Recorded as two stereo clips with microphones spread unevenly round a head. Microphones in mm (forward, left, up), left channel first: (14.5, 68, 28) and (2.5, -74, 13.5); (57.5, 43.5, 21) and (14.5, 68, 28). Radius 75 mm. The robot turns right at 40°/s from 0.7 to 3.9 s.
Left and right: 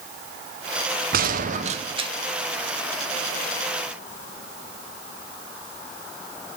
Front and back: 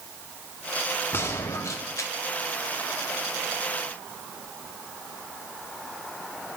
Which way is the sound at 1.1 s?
75° right.